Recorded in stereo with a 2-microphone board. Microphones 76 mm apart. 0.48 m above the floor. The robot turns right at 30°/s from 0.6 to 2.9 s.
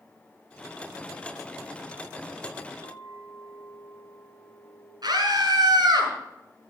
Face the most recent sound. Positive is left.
turn(degrees=-65)  # may be behind; listen again after turning